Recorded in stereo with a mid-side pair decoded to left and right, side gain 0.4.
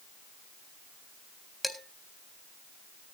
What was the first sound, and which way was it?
Dishes clattering, straight ahead.